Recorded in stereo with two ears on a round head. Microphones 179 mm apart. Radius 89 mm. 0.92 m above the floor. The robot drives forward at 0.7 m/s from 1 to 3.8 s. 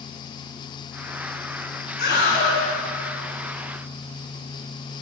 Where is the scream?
50° left (ahead or behind), 8 m.